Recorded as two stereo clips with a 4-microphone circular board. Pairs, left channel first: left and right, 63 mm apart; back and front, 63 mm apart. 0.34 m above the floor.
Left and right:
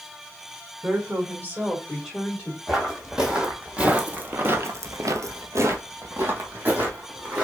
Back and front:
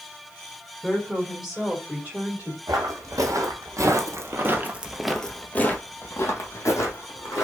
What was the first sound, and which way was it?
A woman speaking, 105° right.